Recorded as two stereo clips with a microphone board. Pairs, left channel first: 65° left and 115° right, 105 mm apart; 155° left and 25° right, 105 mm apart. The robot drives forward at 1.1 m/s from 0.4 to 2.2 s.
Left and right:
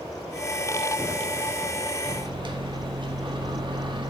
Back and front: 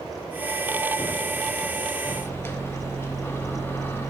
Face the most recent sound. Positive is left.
turn(degrees=-140)